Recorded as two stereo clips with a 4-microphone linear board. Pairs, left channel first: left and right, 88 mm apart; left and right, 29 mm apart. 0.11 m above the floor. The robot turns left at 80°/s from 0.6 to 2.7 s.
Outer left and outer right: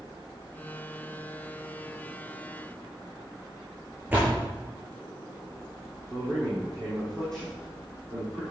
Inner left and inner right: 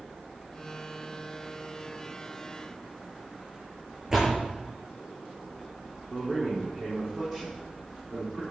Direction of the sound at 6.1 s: 5° left (ahead or behind).